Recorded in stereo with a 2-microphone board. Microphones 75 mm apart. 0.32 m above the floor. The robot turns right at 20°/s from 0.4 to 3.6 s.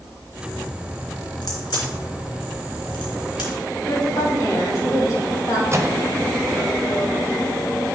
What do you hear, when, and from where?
1.4 s a crack: 65° left (ahead or behind), 2.5 m
3.9 s a woman speaking: 45° left (ahead or behind), 2.5 m
5.7 s a microwave: 35° right (ahead or behind), 0.8 m